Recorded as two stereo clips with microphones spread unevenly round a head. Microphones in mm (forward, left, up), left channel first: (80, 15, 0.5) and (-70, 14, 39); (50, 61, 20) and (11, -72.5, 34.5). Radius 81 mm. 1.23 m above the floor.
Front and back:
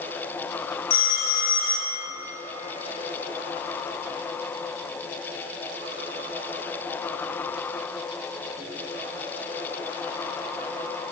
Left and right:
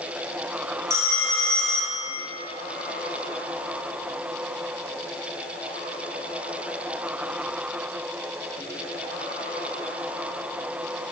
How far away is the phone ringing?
About 2 m.